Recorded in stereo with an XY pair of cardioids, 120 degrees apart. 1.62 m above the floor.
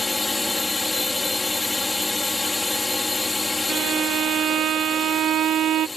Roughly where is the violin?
Ahead right.